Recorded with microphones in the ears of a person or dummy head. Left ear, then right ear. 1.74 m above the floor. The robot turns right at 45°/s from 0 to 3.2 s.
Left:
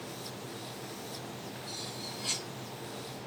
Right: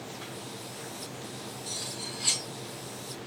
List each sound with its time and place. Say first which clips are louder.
1.7 s cutlery clinking: right 4 dB; 50° right (ahead or behind), 1.7 m; by 2.5 s 20° right (ahead or behind), 1.7 m